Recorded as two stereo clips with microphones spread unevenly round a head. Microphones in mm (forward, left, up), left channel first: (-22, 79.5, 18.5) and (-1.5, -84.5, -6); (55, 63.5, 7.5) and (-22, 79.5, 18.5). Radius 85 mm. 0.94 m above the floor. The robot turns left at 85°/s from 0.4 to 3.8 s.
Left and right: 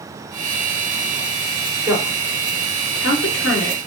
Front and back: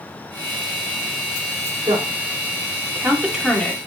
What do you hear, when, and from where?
1.9 s a woman speaking: 150° right, 3.5 m; by 3.8 s 45° left, 3.5 m